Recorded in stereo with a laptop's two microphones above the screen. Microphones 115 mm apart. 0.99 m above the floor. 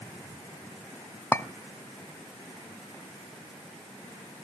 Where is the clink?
25° left (ahead or behind), 0.7 m.